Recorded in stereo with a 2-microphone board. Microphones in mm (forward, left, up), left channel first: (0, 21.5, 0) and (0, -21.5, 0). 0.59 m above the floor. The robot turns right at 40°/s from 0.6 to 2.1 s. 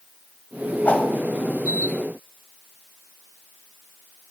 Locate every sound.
0.8 s a whoosh: 40° left (ahead or behind), 0.5 m; by 1.1 s 35° left (ahead or behind), 0.5 m